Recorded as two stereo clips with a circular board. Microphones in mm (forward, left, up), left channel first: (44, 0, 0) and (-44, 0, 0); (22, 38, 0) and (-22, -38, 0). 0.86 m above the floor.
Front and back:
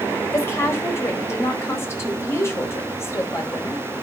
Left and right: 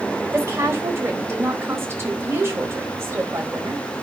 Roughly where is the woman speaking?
Ahead right.